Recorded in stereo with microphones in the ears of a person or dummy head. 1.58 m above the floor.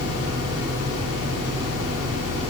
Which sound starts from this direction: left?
A fan, at 0.0 s.